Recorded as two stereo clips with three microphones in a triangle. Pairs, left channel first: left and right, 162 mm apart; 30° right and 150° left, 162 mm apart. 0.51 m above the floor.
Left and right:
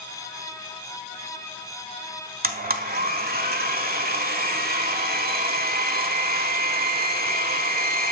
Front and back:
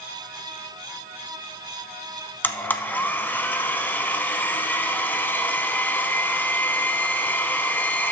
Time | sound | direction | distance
2.4 | a blender | 110° right | 0.8 m